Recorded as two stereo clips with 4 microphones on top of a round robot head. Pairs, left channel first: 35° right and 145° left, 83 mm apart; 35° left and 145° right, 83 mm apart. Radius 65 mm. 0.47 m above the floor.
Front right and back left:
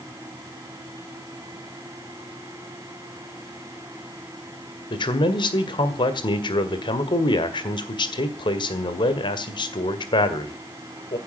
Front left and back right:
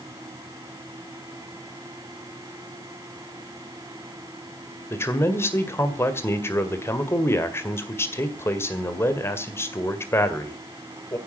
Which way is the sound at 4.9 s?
25° right.